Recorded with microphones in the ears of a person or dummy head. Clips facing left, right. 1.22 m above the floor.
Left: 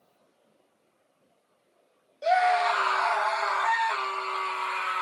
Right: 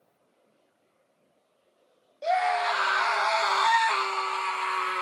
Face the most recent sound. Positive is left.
turn(degrees=-70)  # may be behind; listen again after turning